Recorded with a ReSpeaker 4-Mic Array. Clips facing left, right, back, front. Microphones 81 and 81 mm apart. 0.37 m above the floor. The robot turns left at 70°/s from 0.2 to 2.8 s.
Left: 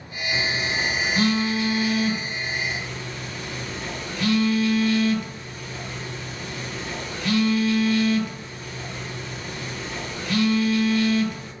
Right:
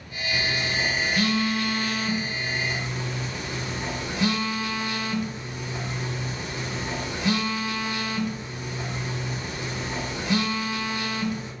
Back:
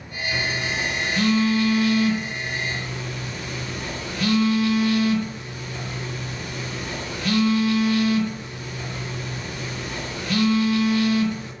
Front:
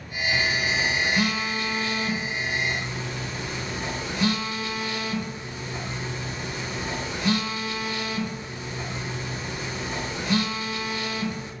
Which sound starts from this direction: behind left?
A phone buzzing, at 0.3 s.